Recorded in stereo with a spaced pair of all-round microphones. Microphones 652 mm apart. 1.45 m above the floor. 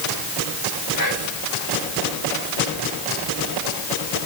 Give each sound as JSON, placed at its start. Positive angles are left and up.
{"t": 1.0, "sound": "whispering", "side_deg": 30, "distance_m": 4.5}